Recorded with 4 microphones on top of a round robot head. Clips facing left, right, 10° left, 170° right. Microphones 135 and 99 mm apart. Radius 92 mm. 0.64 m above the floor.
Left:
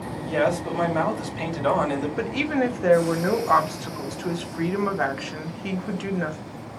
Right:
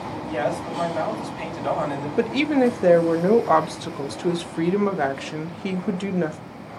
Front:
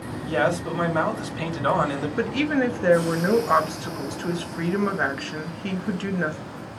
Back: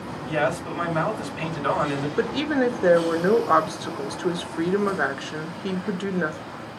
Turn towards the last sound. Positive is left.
turn(degrees=-110)